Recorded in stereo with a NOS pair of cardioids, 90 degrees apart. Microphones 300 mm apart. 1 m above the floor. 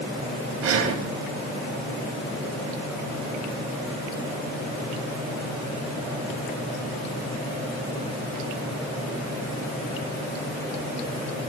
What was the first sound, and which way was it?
Breathing, 50° right.